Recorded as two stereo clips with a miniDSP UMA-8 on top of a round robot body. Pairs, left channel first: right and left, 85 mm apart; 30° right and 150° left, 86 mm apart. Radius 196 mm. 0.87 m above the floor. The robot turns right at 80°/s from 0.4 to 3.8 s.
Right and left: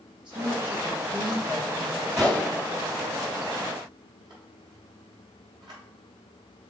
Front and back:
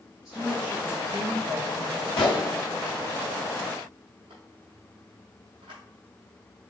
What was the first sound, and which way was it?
A woman speaking, 65° left.